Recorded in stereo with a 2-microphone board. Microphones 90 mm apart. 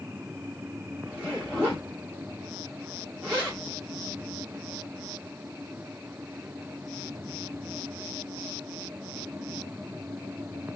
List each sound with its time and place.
1.1 s a zipper: 15° right (ahead or behind), 2 m